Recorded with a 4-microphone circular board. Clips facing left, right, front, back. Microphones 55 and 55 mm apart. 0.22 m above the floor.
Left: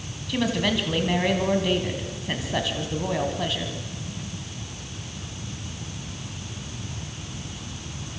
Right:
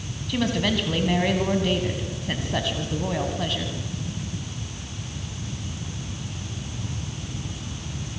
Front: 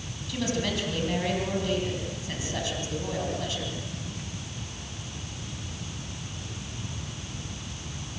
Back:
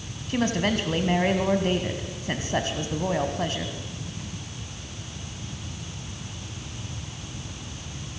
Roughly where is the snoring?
No snoring in this recording.